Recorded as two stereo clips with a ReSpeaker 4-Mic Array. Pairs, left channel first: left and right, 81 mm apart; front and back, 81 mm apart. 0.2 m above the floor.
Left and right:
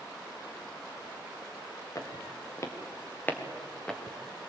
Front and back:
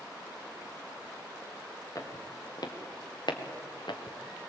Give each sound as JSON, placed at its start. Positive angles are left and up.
{"t": 1.9, "sound": "footsteps", "azimuth_deg": 45, "distance_m": 4.0}